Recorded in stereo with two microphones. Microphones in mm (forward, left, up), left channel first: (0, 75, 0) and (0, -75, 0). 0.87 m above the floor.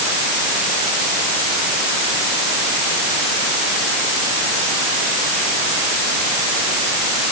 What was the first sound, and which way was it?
Only background noise.